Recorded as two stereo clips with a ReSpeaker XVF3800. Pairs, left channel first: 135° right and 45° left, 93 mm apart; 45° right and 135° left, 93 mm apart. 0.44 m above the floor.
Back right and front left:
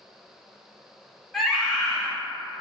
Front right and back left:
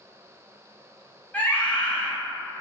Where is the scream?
50° right, 0.7 m.